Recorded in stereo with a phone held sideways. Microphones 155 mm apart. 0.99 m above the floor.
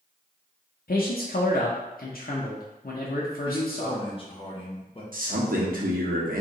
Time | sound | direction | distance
0.9 | a man speaking | 65° left (ahead or behind) | 0.7 m
3.4 | a man speaking | 35° left (ahead or behind) | 1.0 m
5.1 | a man speaking | 65° right (ahead or behind) | 1.1 m